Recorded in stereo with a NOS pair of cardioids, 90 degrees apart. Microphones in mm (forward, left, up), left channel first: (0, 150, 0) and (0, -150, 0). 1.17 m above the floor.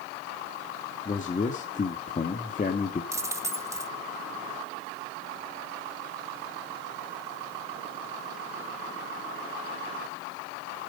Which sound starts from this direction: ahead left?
A man speaking, at 1.1 s.